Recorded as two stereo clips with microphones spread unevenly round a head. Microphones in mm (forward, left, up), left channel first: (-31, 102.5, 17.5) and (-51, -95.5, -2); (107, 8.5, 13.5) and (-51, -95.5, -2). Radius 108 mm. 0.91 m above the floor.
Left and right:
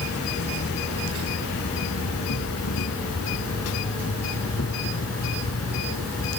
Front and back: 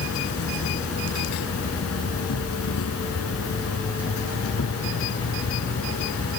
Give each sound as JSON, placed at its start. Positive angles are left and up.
{"t": 0.0, "sound": "an insect", "azimuth_deg": 55}